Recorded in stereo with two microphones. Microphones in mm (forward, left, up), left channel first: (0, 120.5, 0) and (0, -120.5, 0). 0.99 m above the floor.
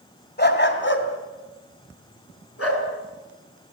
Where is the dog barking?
45° left (ahead or behind), 3 m; by 2.8 s 70° left (ahead or behind), 5.5 m.